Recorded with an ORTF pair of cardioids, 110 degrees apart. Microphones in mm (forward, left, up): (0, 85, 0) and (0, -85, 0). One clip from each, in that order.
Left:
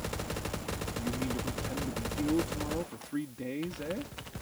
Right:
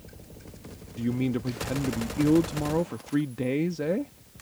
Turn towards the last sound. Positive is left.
turn(degrees=-55)